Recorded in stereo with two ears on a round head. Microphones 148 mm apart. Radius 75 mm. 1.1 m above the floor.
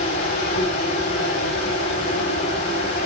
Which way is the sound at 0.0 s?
70° left (ahead or behind).